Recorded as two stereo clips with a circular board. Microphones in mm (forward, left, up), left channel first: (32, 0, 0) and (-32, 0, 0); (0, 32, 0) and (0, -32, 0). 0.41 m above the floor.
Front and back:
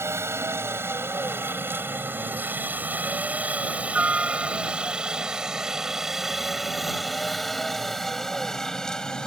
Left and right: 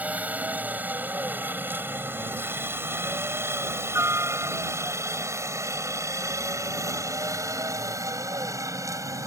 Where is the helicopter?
150° right; by 9.3 s 75° right.